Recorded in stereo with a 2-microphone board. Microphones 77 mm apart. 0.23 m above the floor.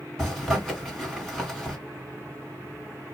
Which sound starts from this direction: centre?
A zipper, at 0.2 s.